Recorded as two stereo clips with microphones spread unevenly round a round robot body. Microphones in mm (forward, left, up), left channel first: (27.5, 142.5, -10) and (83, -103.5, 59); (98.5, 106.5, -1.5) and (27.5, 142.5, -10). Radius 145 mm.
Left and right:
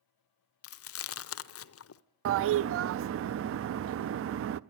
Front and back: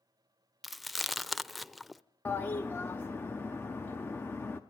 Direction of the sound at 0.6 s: 60° left.